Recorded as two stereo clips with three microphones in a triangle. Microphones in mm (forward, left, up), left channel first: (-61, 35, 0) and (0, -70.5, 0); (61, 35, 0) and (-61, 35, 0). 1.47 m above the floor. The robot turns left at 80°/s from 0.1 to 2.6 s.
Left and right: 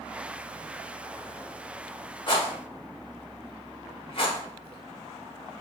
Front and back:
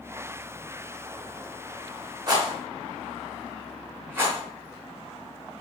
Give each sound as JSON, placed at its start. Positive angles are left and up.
{"t": 2.3, "sound": "a rattle", "azimuth_deg": 145, "distance_m": 0.8}